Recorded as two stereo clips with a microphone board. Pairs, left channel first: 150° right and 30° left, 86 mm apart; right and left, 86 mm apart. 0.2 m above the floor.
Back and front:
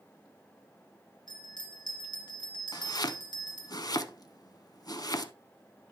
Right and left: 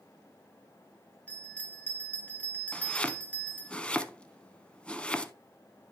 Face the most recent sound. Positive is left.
turn(degrees=-165)